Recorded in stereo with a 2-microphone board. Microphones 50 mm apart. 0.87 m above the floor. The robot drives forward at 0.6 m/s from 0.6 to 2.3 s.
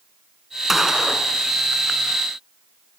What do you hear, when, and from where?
0.7 s a gunshot: 10° right (ahead or behind), 2.5 m; by 1.3 s 5° right (ahead or behind), 2.5 m